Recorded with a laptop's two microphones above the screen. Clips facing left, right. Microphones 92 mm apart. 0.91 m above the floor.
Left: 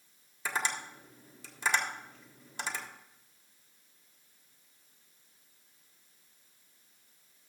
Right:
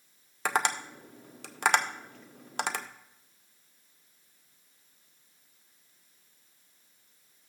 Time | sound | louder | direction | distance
0.5 | tapping | right 6 dB | 65° right (ahead or behind) | 0.6 m